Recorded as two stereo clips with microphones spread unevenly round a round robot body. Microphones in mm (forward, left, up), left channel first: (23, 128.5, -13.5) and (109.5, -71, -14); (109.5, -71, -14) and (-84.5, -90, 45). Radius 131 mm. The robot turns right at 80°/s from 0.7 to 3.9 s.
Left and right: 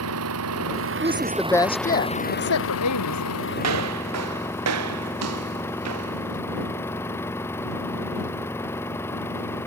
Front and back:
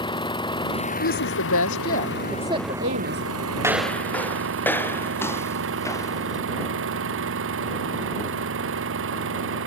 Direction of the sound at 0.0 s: 60° right.